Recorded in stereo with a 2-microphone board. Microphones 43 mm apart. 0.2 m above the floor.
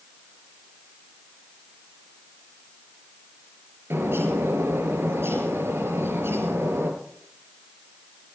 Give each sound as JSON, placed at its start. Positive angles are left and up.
{"t": 3.9, "sound": "a bird", "side_deg": -65, "distance_m": 4.0}